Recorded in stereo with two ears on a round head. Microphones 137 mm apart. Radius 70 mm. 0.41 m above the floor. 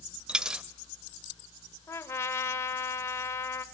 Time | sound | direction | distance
0.3 | a dropped coin | 5° right (ahead or behind) | 0.6 m
1.9 | a trumpet | 20° left (ahead or behind) | 1.0 m